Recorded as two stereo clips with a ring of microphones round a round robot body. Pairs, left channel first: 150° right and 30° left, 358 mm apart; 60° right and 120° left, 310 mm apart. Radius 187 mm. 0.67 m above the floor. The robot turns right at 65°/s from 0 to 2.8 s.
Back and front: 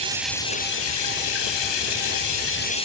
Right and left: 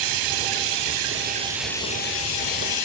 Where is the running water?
105° left, 5 m; by 2.9 s 75° right, 5 m.